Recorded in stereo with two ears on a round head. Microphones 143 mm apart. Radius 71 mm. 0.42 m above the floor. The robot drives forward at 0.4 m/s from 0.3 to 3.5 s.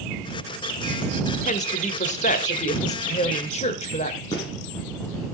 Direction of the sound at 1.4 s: 45° left (ahead or behind).